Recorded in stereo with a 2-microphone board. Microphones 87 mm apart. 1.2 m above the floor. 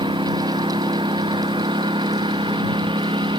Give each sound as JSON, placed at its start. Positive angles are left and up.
{"t": 0.0, "sound": "a lawn mower", "side_deg": -75}